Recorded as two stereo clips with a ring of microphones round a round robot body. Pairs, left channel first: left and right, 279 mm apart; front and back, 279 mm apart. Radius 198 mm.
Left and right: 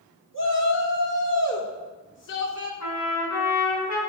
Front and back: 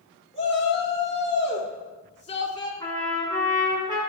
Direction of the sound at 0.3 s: 65° left.